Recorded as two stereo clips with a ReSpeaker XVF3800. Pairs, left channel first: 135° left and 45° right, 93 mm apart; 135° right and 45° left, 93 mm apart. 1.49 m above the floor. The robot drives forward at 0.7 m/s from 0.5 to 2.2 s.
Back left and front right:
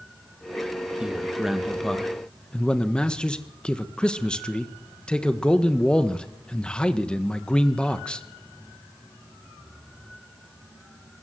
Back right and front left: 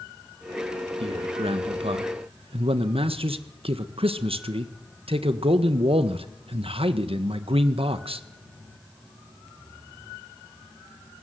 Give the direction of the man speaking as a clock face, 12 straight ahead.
11 o'clock.